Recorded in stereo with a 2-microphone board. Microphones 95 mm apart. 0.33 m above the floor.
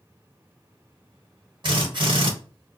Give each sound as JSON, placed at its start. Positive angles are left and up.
{"t": 1.6, "sound": "a drill", "side_deg": -55, "distance_m": 1.6}